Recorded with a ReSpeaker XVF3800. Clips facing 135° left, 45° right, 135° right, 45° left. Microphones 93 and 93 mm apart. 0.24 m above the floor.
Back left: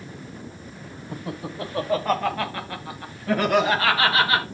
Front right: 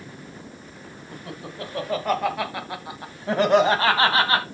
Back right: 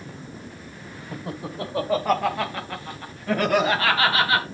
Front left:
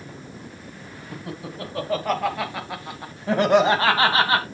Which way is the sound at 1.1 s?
165° right.